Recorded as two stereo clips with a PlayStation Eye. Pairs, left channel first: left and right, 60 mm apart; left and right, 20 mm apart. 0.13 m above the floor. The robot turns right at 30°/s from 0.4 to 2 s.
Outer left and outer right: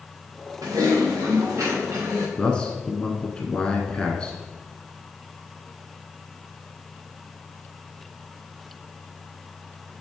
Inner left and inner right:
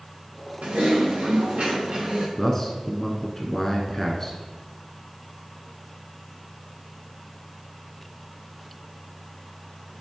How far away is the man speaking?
About 1.1 m.